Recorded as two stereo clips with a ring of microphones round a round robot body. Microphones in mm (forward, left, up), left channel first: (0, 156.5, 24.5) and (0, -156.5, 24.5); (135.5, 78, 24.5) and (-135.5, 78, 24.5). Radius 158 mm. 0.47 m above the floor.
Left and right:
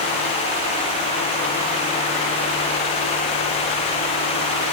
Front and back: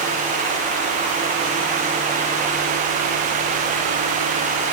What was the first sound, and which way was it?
Only background noise.